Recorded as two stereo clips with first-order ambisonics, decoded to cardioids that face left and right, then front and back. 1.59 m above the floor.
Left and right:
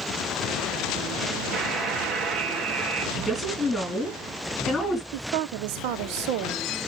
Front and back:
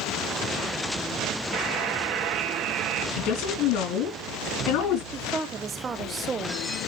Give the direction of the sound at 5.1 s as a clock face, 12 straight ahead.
4 o'clock.